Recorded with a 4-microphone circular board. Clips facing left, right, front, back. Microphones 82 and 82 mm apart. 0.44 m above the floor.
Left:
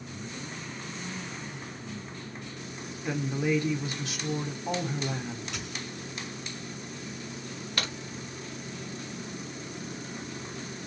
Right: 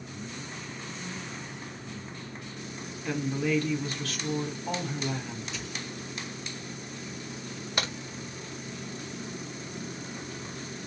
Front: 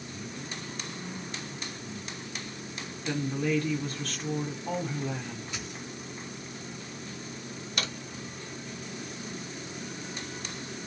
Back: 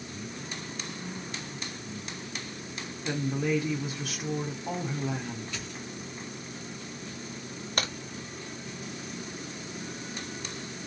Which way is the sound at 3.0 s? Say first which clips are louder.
Even, even; 120° left.